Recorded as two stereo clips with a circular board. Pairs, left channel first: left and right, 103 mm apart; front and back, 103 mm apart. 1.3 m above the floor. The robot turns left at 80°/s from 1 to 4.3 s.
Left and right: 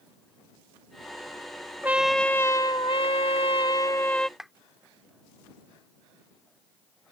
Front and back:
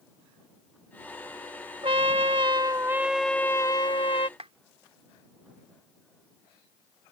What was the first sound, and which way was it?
A trumpet, 160° right.